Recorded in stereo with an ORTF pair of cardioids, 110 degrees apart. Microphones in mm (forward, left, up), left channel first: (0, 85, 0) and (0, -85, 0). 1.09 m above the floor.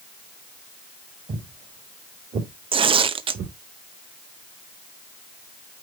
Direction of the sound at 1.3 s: 40° right.